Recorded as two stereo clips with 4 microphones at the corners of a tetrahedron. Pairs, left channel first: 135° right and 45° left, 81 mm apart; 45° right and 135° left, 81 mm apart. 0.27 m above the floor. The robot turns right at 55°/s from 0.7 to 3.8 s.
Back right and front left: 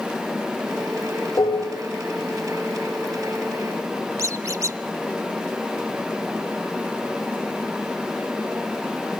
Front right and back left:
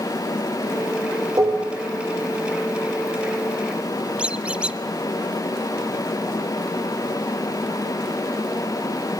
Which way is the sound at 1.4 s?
Straight behind.